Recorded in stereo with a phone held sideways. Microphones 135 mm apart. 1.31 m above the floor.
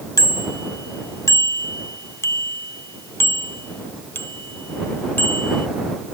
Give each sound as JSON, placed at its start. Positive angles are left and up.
{"t": 0.2, "sound": "a bicycle bell", "side_deg": 30}